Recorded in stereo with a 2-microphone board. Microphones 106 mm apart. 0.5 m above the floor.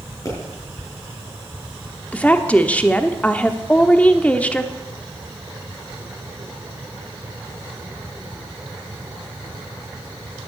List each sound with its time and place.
0.2 s a pop: 30° left (ahead or behind), 6.5 m
2.1 s a woman speaking: 15° left (ahead or behind), 1.0 m